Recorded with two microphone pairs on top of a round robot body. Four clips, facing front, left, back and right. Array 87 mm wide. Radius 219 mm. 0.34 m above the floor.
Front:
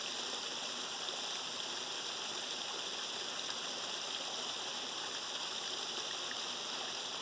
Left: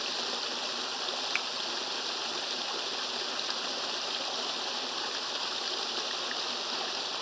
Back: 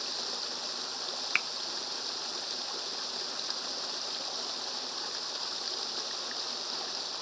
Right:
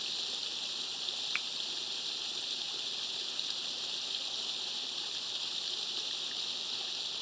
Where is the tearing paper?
No tearing paper in this recording.